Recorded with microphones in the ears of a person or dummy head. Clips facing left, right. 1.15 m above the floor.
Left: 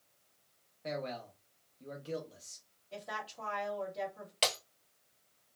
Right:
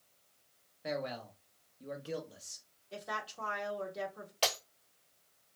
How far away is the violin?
No violin in this recording.